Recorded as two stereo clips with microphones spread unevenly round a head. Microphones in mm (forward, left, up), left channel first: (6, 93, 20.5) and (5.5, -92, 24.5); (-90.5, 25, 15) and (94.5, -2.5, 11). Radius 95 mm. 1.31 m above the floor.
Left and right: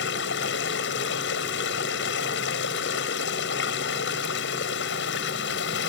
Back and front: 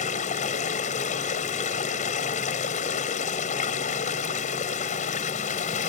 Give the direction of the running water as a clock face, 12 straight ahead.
8 o'clock.